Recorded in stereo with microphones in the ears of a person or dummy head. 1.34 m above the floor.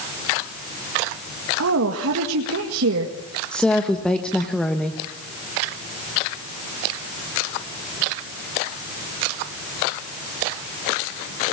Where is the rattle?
No rattle in this recording.